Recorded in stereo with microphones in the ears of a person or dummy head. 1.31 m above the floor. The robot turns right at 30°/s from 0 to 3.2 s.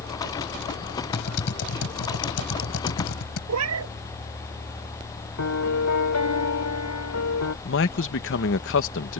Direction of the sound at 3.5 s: 75° right (ahead or behind).